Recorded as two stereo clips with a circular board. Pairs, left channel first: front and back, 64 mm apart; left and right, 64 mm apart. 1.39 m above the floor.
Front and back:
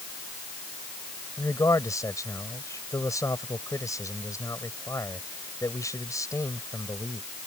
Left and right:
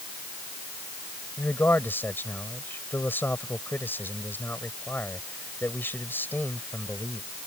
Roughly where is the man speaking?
Ahead left.